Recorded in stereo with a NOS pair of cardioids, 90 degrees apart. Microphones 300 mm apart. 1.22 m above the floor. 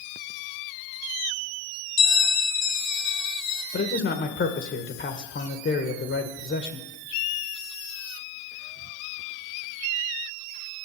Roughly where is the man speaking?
Ahead left.